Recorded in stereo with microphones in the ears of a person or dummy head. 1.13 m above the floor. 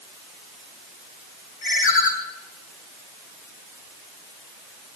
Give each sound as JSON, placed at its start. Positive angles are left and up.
{"t": 1.6, "sound": "a ringtone", "side_deg": 60, "distance_m": 2.5}